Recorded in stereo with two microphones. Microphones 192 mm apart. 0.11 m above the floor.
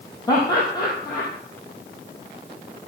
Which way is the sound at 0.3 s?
20° left (ahead or behind).